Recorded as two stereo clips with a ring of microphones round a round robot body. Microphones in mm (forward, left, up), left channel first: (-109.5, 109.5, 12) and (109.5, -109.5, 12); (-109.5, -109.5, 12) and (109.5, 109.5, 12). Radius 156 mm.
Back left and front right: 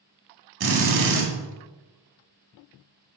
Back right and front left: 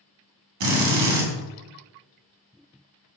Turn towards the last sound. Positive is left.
turn(degrees=5)